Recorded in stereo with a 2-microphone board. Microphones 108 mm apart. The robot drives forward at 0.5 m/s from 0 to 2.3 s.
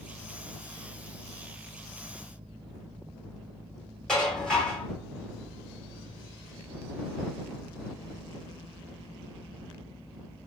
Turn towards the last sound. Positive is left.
turn(degrees=5)  # may be behind; listen again after turning